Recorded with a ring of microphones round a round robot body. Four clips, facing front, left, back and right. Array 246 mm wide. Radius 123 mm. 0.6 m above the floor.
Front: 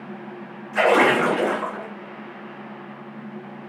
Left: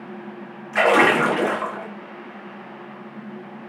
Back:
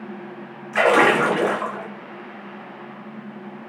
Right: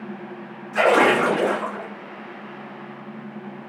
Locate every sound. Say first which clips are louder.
0.7 s a splash: even, back 1 dB; 140° left, 1.3 m